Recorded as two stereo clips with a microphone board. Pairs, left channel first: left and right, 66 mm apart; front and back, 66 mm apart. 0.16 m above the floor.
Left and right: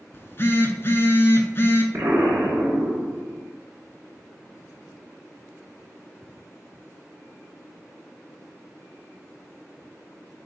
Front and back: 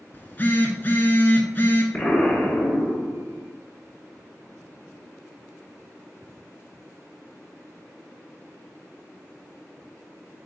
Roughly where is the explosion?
Right.